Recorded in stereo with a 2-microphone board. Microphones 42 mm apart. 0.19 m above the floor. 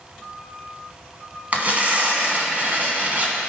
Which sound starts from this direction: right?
Tearing paper, at 1.5 s.